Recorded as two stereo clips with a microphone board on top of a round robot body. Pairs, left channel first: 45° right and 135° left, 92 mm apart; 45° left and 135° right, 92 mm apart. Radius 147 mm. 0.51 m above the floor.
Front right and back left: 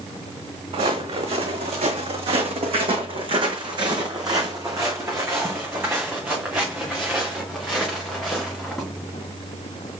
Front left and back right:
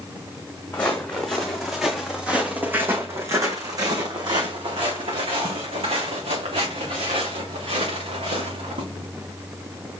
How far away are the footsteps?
About 2 m.